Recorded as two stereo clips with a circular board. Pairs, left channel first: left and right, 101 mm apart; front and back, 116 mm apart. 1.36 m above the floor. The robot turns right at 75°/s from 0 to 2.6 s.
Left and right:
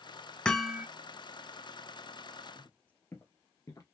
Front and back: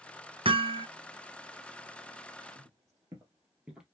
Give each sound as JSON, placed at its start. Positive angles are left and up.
{"t": 0.5, "sound": "hammering", "azimuth_deg": 170, "distance_m": 0.7}
{"t": 2.5, "sound": "footsteps", "azimuth_deg": 155, "distance_m": 1.8}